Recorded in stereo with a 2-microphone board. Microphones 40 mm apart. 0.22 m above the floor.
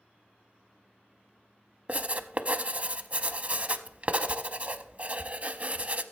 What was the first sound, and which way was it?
Writing, 40° right (ahead or behind).